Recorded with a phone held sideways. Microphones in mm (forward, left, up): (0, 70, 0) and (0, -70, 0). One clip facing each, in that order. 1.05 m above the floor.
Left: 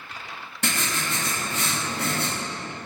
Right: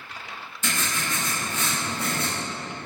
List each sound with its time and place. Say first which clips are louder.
0.6 s writing: left 1 dB; 60° left (ahead or behind), 2 m